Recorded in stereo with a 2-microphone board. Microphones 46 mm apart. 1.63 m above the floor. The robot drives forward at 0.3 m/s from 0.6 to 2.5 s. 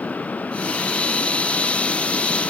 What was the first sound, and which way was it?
Only background noise.